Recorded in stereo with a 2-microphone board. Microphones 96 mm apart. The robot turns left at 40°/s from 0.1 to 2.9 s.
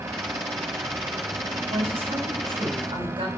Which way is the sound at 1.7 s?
70° right.